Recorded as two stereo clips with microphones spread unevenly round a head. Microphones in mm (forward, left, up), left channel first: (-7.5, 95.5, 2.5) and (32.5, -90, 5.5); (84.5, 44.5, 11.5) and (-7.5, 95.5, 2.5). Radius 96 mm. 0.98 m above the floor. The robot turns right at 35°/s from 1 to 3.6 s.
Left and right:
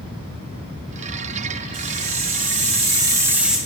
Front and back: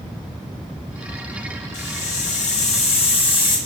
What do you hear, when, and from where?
1.7 s a hiss: 55° right, 4.5 m; by 3.6 s 10° left, 4.5 m